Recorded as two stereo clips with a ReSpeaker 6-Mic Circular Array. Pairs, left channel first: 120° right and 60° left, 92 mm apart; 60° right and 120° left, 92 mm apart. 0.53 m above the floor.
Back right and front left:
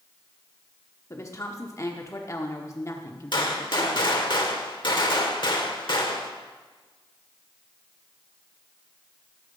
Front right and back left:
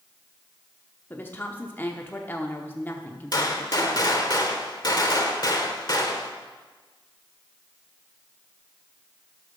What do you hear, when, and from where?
1.1 s a woman speaking: 110° right, 0.8 m
3.3 s a gunshot: 100° right, 1.2 m